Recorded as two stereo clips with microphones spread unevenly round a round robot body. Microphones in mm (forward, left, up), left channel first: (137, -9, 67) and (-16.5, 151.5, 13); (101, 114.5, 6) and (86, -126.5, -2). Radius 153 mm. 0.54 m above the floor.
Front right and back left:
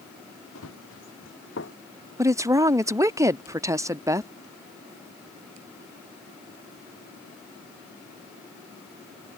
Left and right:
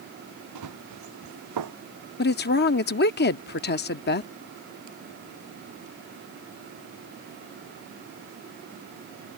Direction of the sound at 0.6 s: 95° right.